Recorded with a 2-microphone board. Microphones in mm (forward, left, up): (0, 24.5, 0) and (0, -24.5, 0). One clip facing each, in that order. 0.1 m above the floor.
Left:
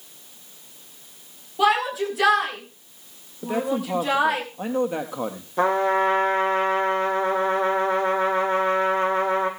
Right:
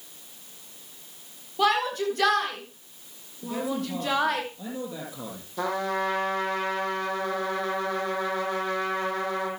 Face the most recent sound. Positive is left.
turn(degrees=35)  # may be behind; listen again after turning